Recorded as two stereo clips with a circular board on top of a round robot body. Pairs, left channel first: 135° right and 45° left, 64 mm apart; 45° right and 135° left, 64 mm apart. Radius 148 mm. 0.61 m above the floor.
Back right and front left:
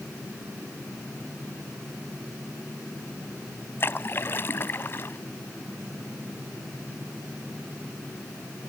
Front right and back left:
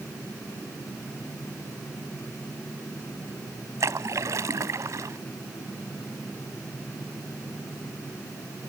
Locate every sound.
3.8 s a splash: 170° left